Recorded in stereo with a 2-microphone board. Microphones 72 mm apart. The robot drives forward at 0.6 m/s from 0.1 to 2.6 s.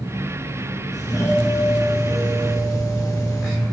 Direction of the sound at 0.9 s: 50° left (ahead or behind).